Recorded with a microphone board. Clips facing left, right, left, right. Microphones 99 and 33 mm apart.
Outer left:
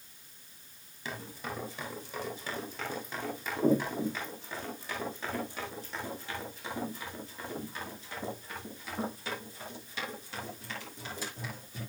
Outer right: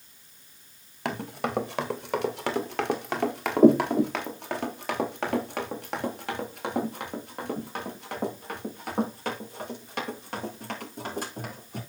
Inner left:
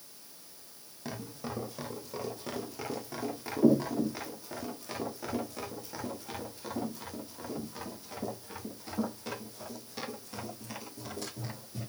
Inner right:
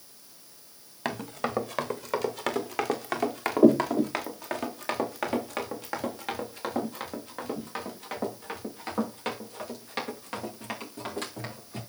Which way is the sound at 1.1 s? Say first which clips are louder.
Outer right 9 dB, inner right 8 dB; 75° right (ahead or behind).